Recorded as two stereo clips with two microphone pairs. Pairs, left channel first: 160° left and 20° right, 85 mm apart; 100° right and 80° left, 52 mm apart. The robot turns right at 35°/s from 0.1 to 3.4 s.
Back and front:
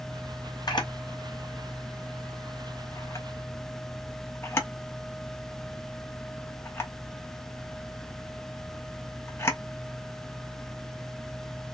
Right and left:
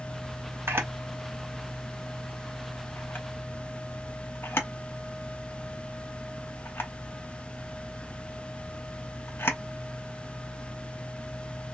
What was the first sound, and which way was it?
A camera shutter, 120° left.